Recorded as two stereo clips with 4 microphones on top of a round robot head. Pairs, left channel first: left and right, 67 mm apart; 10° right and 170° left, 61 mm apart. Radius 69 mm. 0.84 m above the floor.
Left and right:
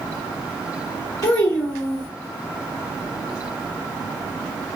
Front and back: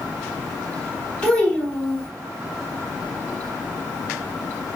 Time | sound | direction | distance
1.2 | a child speaking | 50° left | 2.5 m